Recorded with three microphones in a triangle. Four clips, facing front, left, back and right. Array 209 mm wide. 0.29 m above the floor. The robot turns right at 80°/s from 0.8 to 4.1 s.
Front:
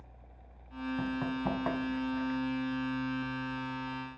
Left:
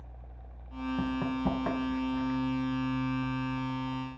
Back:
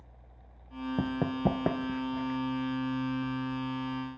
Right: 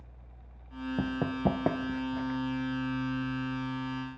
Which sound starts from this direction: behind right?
Running footsteps, at 1.0 s.